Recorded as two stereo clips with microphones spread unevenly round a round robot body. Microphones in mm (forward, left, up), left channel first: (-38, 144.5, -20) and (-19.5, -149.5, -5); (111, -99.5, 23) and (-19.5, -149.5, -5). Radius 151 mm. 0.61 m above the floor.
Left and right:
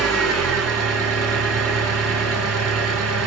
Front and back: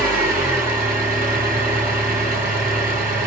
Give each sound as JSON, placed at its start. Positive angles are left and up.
{"t": 0.0, "sound": "an engine running", "azimuth_deg": -175, "distance_m": 1.9}